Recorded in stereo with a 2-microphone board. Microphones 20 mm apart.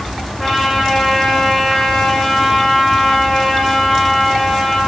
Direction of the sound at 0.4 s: 10° left (ahead or behind).